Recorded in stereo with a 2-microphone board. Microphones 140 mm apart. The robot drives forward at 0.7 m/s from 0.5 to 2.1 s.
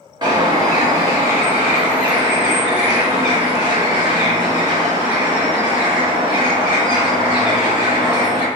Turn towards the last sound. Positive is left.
turn(degrees=-15)  # may be behind; listen again after turning